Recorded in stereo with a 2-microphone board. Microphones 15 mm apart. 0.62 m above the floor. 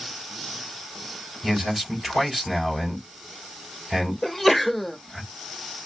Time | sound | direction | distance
1.4 | a man speaking | 10° right (ahead or behind) | 3 m
4.2 | a sneeze | 10° left (ahead or behind) | 0.8 m